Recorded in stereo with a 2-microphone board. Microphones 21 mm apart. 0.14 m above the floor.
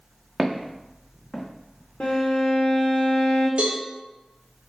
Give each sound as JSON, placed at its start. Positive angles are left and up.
{"t": 0.4, "sound": "footsteps", "side_deg": -5, "distance_m": 0.8}
{"t": 2.0, "sound": "a violin", "side_deg": 70, "distance_m": 1.4}
{"t": 3.6, "sound": "a cowbell", "side_deg": -65, "distance_m": 1.0}